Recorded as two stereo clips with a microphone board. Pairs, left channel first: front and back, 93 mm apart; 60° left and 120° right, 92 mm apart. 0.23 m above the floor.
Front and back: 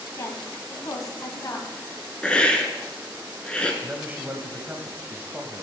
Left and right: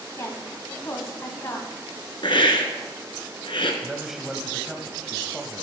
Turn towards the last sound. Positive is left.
turn(degrees=165)